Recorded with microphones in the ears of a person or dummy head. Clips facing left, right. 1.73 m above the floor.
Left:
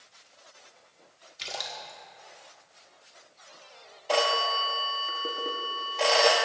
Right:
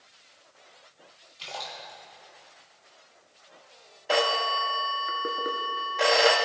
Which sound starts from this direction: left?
A splash, at 1.4 s.